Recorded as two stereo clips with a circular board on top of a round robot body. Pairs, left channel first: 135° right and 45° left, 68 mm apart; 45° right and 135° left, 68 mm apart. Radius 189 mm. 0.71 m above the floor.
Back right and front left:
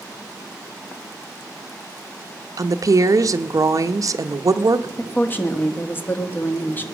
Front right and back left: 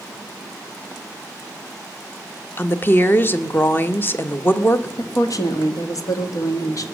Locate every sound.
2.6 s a woman speaking: 15° left, 1.0 m
5.0 s a woman speaking: 75° right, 1.5 m